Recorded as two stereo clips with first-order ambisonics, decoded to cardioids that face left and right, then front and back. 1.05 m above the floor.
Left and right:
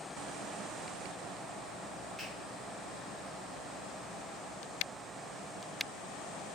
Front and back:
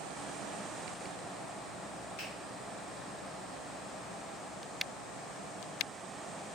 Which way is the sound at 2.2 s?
10° left.